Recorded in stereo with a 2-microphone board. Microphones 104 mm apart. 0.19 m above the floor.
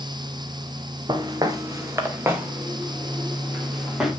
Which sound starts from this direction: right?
Footsteps, at 1.1 s.